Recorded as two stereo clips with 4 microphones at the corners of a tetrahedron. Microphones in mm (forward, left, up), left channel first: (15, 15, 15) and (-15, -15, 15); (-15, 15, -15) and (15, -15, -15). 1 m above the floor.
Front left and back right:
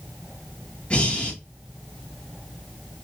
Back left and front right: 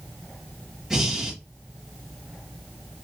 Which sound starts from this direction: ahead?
Breathing, at 0.9 s.